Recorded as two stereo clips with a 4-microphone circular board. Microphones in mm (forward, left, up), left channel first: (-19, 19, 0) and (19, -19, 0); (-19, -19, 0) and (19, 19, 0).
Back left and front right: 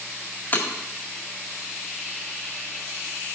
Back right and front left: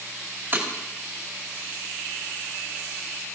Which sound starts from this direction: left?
Breaking glass, at 0.5 s.